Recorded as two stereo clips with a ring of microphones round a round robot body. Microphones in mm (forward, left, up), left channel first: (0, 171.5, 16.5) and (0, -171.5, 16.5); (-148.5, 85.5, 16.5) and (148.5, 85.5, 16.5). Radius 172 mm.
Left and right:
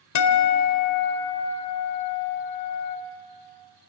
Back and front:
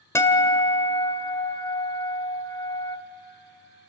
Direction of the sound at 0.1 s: 100° left.